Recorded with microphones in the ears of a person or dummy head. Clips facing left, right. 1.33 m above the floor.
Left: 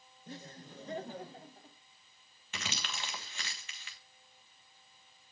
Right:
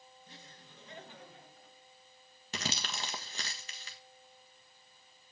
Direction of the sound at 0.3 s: 45° left (ahead or behind).